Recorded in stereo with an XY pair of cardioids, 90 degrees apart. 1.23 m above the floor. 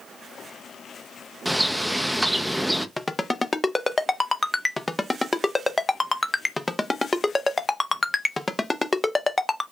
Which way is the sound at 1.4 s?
5° right.